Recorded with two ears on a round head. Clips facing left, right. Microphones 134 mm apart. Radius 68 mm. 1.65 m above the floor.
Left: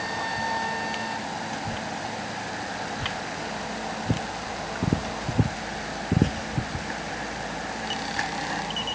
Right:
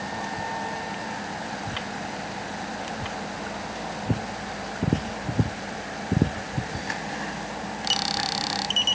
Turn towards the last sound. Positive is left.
No sound to turn to.